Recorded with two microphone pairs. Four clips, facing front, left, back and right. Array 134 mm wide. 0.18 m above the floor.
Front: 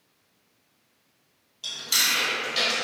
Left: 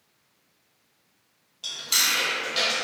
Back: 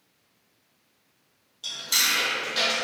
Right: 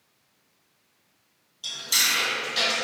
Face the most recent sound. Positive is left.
turn(degrees=75)